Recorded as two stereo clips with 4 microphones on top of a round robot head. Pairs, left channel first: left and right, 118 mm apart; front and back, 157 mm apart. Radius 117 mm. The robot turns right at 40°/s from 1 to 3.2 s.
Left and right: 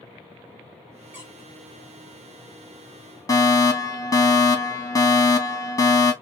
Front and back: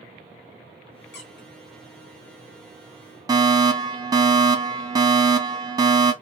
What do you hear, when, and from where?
1.1 s a squeak: 10° right, 2 m; by 1.5 s 5° left, 2 m
3.3 s a fire alarm: 130° left, 2 m